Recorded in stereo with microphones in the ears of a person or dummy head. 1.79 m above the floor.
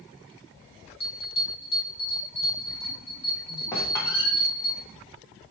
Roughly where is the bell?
Left.